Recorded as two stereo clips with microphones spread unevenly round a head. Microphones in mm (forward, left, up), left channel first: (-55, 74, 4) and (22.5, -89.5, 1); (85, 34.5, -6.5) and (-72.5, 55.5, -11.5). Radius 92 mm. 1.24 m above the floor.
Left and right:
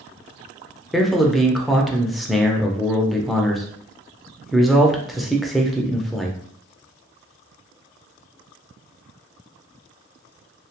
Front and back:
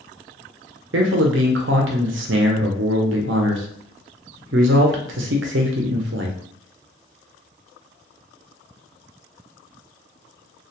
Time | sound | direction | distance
0.9 | a man speaking | 155° right | 0.5 m